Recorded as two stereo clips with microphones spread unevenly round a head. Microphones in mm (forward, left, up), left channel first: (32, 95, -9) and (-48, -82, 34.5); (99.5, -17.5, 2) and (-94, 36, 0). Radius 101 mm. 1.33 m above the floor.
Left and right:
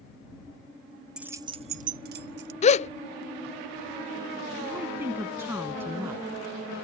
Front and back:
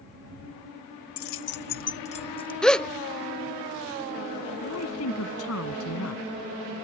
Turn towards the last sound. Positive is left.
turn(degrees=-35)